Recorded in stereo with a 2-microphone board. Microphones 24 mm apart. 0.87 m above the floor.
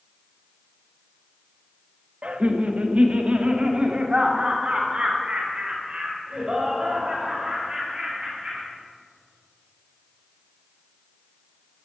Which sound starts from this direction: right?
Laughter, at 2.2 s.